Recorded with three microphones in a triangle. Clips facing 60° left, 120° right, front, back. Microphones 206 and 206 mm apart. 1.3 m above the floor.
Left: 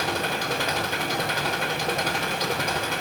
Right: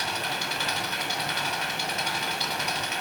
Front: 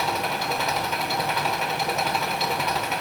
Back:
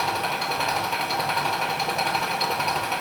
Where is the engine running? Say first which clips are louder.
Left 6 dB, front 1 dB; 90° left, 4 m.